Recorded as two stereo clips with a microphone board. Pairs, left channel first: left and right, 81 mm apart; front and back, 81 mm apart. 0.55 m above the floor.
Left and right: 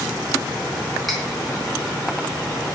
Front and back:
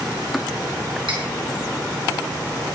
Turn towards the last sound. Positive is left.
turn(degrees=180)